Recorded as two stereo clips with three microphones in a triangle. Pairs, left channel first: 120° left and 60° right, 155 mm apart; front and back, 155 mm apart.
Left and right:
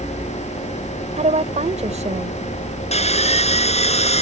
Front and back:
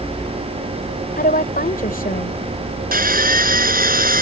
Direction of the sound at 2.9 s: 165° left.